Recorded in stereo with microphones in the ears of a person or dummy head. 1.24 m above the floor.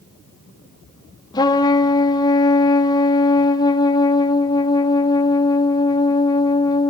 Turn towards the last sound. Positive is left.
turn(degrees=25)  # may be behind; listen again after turning